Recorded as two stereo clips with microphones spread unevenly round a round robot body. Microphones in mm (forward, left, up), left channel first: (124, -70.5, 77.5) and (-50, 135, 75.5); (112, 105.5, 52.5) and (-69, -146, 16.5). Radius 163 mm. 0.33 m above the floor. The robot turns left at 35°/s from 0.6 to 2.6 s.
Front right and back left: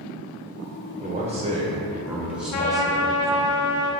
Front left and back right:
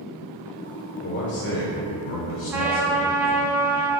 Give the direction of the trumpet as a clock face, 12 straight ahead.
1 o'clock.